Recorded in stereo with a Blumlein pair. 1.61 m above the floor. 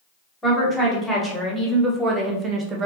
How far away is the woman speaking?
About 2 m.